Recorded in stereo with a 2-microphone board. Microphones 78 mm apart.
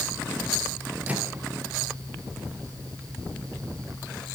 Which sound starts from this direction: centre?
A microwave, at 1.1 s.